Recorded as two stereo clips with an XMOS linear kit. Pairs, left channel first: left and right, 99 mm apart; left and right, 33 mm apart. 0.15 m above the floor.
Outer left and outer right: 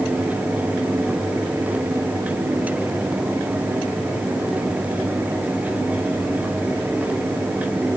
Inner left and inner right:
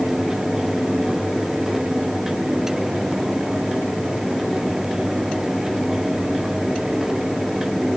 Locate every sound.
Only background noise.